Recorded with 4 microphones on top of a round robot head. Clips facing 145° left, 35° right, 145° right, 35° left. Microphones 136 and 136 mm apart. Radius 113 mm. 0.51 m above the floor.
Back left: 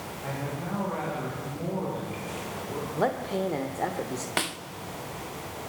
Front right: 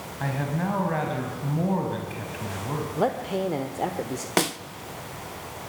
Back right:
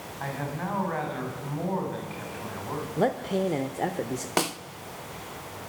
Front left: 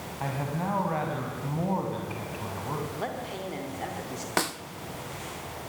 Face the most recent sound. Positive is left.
turn(degrees=-75)